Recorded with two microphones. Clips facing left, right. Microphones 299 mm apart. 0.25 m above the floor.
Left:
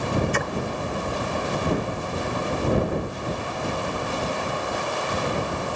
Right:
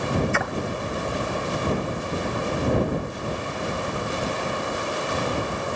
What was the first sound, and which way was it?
A splash, 40° left (ahead or behind).